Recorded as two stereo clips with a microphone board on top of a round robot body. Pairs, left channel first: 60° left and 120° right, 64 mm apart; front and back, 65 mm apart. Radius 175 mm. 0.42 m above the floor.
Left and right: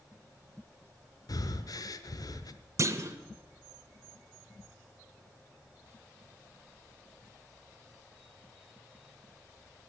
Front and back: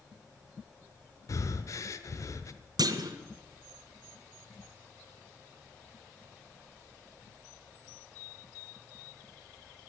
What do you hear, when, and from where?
1.3 s breathing: 35° left, 0.9 m
2.8 s a clunk: 165° right, 1.1 m